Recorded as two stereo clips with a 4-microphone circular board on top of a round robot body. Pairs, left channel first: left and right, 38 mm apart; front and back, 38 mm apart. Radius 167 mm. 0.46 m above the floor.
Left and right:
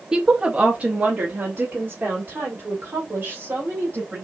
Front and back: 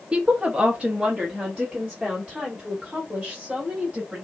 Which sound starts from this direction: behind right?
A woman speaking, at 0.1 s.